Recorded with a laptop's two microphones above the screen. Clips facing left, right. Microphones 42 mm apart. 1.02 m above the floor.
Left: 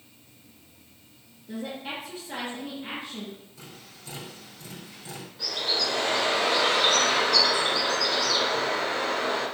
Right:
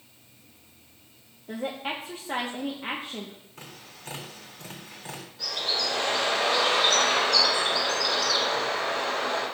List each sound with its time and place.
1.5 s a woman speaking: 40° right (ahead or behind), 1.1 m
3.6 s tapping: 50° right (ahead or behind), 4 m
5.4 s a bird: 10° left (ahead or behind), 2.5 m